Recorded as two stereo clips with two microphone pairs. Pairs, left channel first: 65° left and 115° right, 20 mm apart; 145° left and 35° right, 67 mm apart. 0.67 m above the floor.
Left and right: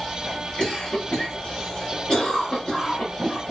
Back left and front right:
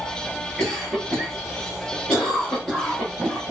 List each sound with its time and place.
0.6 s a cough: 50° left, 1.8 m